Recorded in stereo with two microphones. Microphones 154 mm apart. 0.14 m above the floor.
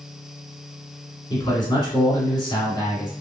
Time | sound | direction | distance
1.3 | a man speaking | 25° left (ahead or behind) | 1.8 m